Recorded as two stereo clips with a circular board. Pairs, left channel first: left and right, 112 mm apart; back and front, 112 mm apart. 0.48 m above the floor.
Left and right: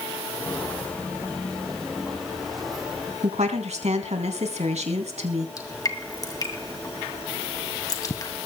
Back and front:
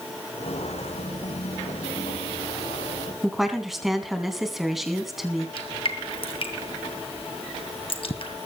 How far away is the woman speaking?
About 3.5 m.